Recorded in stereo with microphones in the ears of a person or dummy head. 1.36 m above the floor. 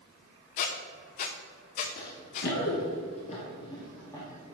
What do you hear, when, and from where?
0.6 s a squeak: 30° left (ahead or behind), 0.6 m
2.0 s running footsteps: 50° left (ahead or behind), 2 m; by 4.5 s 15° left (ahead or behind), 3 m